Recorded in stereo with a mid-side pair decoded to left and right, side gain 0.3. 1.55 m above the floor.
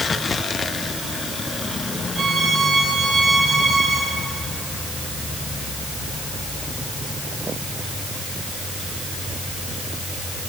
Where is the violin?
65° right, 7.5 m.